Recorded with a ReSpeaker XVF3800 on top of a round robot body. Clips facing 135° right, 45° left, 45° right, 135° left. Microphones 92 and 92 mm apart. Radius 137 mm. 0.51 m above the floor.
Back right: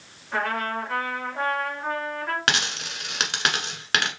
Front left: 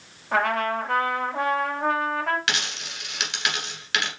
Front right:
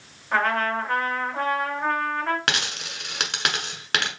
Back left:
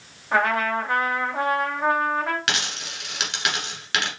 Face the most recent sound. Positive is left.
turn(degrees=-90)